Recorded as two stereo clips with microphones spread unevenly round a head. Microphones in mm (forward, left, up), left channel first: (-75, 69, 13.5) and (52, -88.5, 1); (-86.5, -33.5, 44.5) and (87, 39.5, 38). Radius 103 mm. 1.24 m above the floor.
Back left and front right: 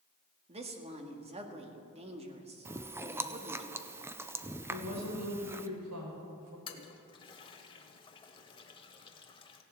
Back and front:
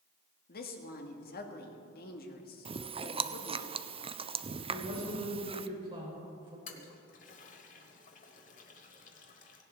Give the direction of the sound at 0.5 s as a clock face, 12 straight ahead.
4 o'clock.